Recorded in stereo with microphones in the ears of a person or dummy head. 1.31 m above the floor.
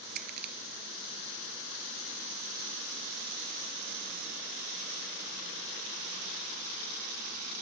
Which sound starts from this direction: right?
Crushing, at 0.2 s.